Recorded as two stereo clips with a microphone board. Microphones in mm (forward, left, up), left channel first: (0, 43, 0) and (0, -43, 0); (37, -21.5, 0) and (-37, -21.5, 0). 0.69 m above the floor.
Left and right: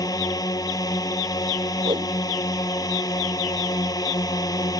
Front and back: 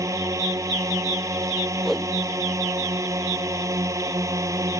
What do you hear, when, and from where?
0.0 s a drone: 135° left
1.9 s a whoosh: 90° right